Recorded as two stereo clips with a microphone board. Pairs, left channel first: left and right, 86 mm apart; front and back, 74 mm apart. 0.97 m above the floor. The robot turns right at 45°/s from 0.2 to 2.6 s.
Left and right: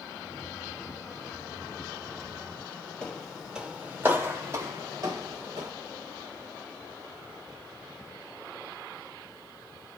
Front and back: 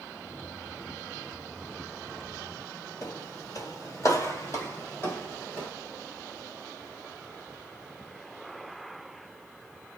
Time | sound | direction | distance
3.0 | footsteps | 20° left | 1.4 m